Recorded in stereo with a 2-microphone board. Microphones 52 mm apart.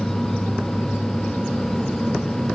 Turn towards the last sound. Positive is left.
No sound to turn to.